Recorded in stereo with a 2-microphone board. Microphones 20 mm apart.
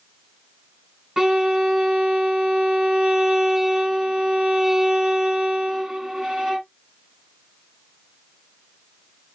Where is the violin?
20° right (ahead or behind), 1.4 m.